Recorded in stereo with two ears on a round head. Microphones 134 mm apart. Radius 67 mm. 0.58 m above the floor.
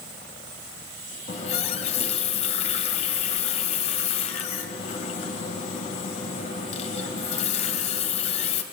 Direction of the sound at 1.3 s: 45° left (ahead or behind).